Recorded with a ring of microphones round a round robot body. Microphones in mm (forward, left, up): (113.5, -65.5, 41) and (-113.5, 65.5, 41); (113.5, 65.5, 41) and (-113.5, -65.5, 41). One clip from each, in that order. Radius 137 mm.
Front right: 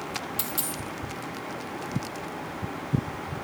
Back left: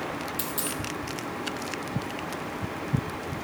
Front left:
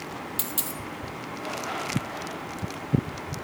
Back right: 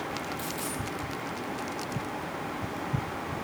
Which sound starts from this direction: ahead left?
A dropped coin, at 0.4 s.